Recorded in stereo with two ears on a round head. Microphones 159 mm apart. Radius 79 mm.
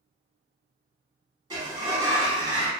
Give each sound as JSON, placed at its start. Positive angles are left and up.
{"t": 1.5, "sound": "a sliding door", "side_deg": -25, "distance_m": 1.2}